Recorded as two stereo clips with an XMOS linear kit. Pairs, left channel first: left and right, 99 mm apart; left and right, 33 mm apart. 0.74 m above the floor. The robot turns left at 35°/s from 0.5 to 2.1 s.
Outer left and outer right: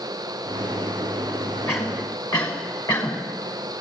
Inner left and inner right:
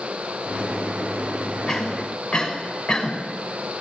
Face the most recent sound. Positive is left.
turn(degrees=40)  # may be behind; listen again after turning